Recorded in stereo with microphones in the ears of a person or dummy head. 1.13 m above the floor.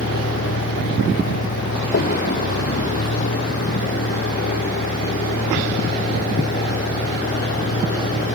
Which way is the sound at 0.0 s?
55° left (ahead or behind).